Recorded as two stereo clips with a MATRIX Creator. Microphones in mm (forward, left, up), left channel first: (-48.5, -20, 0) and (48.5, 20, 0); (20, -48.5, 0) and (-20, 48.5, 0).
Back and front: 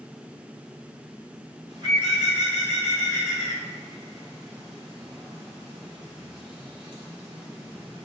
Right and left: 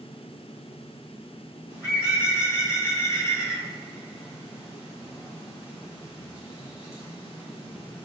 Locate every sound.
1.7 s a bird: 10° right, 1.1 m